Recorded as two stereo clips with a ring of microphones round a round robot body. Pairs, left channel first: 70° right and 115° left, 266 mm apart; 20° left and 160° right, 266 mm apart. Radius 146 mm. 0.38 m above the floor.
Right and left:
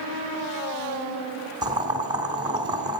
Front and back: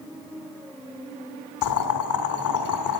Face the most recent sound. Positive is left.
turn(degrees=35)